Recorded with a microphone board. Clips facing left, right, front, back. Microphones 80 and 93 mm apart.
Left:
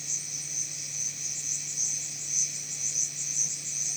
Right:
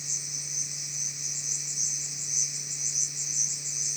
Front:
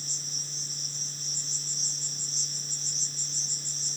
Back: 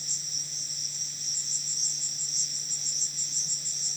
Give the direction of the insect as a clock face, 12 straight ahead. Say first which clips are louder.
Right 1 dB, front 3 dB; 9 o'clock.